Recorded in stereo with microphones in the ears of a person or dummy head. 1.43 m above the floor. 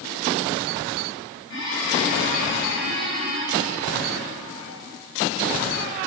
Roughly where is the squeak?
Left.